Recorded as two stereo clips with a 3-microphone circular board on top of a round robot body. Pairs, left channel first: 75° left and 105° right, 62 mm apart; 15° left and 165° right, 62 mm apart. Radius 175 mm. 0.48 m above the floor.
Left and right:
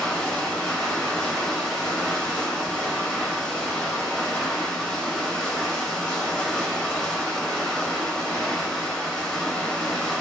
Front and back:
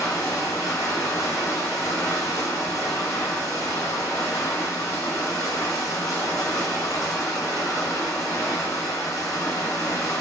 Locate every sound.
0.0 s running water: straight ahead, 1.6 m